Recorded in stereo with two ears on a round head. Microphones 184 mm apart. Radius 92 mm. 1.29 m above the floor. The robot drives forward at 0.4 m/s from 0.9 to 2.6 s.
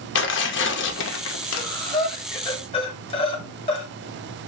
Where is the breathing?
20° left (ahead or behind), 1.8 m; by 3.9 s 25° left (ahead or behind), 1.5 m.